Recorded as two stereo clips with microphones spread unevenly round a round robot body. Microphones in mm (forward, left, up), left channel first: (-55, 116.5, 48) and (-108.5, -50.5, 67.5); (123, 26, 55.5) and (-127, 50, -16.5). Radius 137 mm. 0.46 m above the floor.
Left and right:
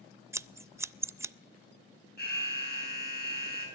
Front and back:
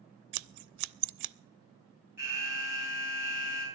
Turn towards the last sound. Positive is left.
turn(degrees=100)